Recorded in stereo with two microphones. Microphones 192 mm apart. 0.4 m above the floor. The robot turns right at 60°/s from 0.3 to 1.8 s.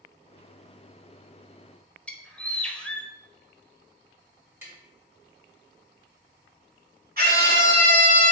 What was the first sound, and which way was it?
A bird, 5° left (ahead or behind).